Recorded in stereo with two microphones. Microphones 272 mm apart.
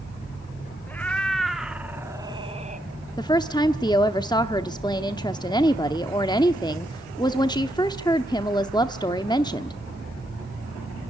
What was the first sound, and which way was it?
A cat meowing, 5° left (ahead or behind).